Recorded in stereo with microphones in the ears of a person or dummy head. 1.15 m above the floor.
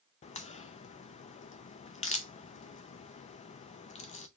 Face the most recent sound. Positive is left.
turn(degrees=30)  # may be behind; listen again after turning